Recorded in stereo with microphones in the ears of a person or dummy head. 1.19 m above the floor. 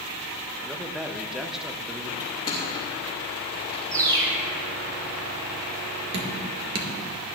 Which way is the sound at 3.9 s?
20° right (ahead or behind).